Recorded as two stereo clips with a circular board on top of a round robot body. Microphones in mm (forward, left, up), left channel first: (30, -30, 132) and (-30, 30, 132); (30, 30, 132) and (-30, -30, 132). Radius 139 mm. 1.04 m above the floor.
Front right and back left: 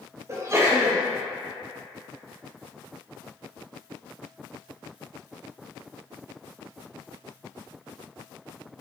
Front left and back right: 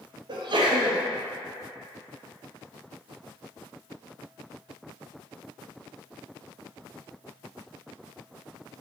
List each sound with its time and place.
0.3 s a sneeze: 165° right, 1.2 m